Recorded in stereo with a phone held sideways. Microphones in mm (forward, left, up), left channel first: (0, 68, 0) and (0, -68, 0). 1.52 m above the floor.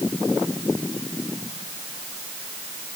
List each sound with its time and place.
Only background noise.